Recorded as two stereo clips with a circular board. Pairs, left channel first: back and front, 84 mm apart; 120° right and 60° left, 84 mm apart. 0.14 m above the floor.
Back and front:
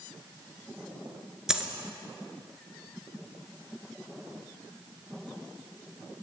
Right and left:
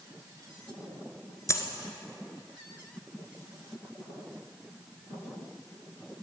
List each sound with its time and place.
1.5 s a dropped coin: 80° right, 1.1 m